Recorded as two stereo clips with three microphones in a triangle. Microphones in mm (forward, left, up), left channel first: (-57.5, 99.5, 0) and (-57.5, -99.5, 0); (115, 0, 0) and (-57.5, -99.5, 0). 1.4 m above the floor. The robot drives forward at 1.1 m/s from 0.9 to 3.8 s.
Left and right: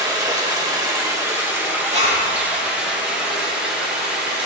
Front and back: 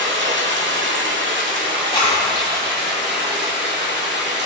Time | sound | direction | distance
0.0 | running water | 160° right | 1.9 m
1.9 | a zipper | 35° right | 3.5 m